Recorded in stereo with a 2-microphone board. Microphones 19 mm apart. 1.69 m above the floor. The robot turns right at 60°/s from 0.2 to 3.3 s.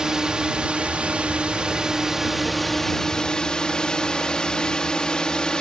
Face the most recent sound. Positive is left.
turn(degrees=40)